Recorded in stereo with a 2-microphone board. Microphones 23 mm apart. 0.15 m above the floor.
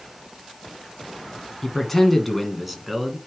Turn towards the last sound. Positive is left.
turn(degrees=-5)  # may be behind; listen again after turning